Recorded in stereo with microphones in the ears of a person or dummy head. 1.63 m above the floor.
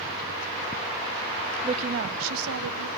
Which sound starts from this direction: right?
A woman speaking, at 1.6 s.